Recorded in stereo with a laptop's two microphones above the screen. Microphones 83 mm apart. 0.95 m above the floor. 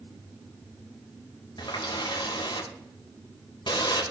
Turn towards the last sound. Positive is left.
turn(degrees=65)  # may be behind; listen again after turning